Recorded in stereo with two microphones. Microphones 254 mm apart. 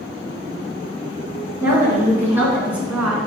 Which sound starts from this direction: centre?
A woman speaking, at 1.6 s.